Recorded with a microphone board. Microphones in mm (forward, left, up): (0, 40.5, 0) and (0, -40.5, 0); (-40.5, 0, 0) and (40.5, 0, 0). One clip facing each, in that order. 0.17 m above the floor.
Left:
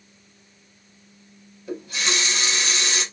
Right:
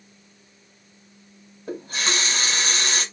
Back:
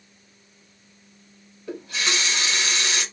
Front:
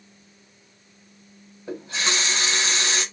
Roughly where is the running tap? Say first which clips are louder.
Even, even; ahead right.